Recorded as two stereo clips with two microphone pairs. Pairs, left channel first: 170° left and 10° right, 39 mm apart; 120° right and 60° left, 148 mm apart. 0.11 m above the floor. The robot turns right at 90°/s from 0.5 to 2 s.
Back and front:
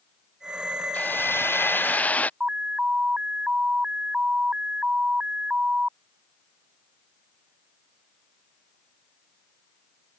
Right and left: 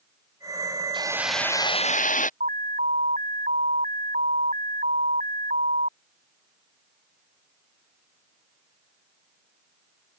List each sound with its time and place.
0.9 s a hiss: 115° left; by 2.3 s 145° right
2.4 s an alarm: 40° left